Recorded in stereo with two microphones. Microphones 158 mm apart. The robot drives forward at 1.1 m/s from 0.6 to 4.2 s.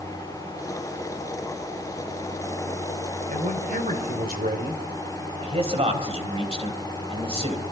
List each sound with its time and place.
3.3 s a man speaking: 55° right (ahead or behind), 3.5 m; by 4.8 s 70° right (ahead or behind), 3 m
5.4 s a man speaking: 40° right (ahead or behind), 3.5 m